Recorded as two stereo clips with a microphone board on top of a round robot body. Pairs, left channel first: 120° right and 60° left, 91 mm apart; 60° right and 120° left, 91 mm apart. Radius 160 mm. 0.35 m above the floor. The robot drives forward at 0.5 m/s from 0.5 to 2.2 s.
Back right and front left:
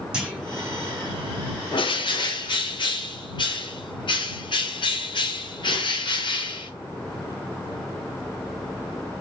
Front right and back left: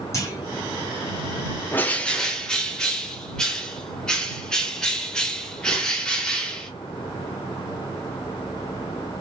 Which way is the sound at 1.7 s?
125° right.